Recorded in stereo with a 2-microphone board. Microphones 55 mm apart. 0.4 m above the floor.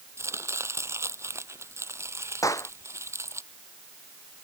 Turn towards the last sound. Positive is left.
turn(degrees=85)